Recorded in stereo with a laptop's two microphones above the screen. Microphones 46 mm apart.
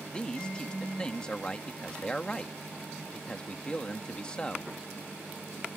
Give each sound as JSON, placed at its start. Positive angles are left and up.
{"t": 0.1, "sound": "a man speaking", "side_deg": 20}